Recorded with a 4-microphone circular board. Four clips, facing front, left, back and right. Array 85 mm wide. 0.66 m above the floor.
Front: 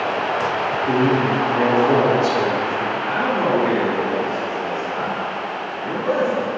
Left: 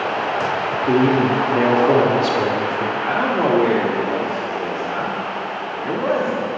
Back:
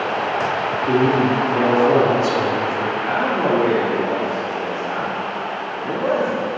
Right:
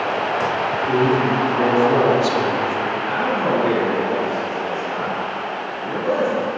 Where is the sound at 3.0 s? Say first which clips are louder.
Left 2 dB, back 1 dB; 100° left, 1.4 m.